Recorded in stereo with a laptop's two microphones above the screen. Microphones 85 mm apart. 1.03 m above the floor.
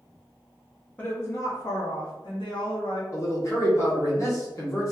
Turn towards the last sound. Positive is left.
turn(degrees=35)  # may be behind; listen again after turning